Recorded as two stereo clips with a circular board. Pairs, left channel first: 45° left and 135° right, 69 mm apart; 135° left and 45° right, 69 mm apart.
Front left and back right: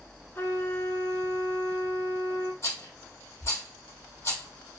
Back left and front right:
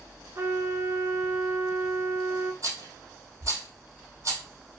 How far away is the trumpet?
About 0.7 m.